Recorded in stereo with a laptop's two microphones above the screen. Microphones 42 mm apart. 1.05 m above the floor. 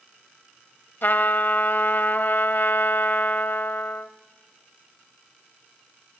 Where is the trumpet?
55° left (ahead or behind), 1.2 m.